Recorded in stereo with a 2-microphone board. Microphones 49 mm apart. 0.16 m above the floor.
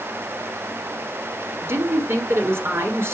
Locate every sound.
1.6 s a woman speaking: 55° right (ahead or behind), 2 m